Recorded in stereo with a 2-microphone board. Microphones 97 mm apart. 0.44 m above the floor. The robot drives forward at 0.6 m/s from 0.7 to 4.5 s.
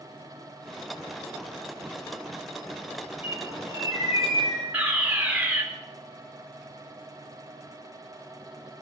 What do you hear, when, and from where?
3.2 s a bird: 80° left, 9 m; by 4.6 s 85° left, 9 m
4.7 s a fire alarm: 15° right (ahead or behind), 2 m